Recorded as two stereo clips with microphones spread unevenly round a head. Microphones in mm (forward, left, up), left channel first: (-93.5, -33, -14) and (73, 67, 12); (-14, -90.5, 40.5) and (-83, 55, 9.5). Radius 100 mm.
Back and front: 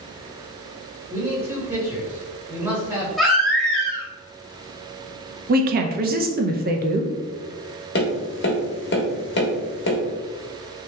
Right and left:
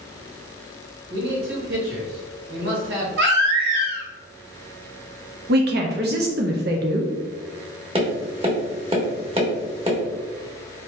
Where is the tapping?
175° left, 1.3 m.